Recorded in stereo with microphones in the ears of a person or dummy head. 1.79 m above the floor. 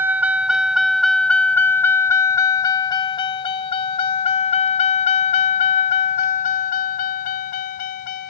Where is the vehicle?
10° right (ahead or behind); by 8.3 s 50° left (ahead or behind).